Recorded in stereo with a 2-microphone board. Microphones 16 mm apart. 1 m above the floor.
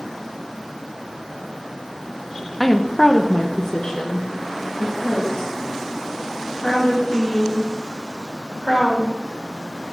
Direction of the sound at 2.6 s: 10° left (ahead or behind).